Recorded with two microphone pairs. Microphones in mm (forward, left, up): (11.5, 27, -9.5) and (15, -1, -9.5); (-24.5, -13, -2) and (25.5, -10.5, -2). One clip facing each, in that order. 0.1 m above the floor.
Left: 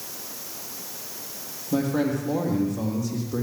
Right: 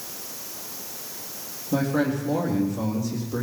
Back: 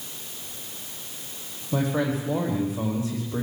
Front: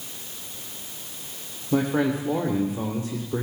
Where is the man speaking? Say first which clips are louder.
Even, front 3 dB; 10° left, 3.5 m.